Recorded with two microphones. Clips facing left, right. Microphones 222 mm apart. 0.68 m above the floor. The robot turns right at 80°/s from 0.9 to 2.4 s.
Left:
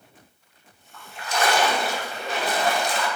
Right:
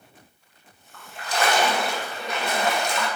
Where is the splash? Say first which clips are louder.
Even; 75° right, 0.7 m; by 3.1 s 45° left, 0.7 m.